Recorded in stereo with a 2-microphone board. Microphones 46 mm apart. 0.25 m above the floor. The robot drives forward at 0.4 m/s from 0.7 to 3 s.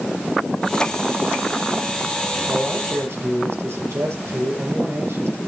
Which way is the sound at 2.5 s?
75° right (ahead or behind).